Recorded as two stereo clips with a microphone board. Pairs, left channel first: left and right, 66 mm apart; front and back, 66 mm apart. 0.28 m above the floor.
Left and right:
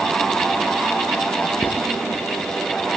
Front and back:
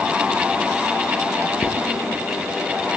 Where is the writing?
40° left, 3 m.